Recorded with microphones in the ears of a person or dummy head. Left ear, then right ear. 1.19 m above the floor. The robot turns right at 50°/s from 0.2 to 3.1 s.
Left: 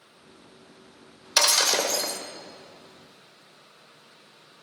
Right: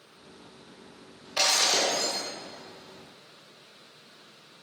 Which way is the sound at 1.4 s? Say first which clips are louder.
Left 2 dB; 70° left.